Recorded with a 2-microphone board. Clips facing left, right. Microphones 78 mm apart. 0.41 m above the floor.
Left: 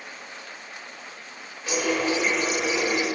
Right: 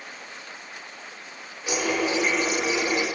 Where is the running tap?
10° right (ahead or behind), 0.6 m.